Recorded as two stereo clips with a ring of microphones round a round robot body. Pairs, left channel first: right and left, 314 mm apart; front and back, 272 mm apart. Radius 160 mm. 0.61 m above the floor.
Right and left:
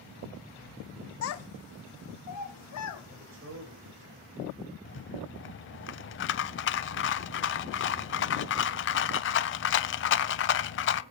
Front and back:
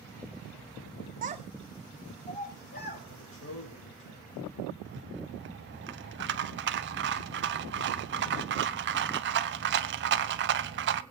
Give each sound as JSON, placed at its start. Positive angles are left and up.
{"t": 1.2, "sound": "a child speaking", "azimuth_deg": -125, "distance_m": 0.9}
{"t": 3.1, "sound": "a man speaking", "azimuth_deg": 40, "distance_m": 3.0}
{"t": 4.8, "sound": "a rattle", "azimuth_deg": -135, "distance_m": 0.6}